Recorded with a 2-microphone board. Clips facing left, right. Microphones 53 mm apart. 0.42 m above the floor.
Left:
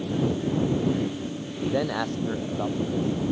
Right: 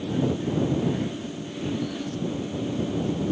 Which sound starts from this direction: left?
A man speaking, at 1.6 s.